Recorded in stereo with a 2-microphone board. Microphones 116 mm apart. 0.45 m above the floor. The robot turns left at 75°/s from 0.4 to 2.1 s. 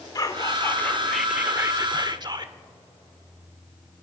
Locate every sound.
0.1 s whispering: 55° left, 1.0 m; by 2.5 s 70° right, 1.0 m